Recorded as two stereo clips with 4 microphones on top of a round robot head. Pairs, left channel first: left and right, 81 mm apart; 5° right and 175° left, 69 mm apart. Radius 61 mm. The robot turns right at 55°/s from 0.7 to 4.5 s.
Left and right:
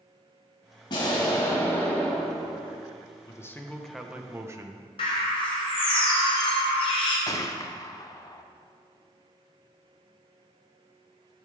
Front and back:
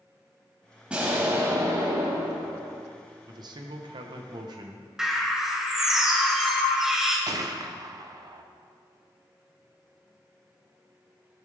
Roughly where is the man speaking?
Behind left.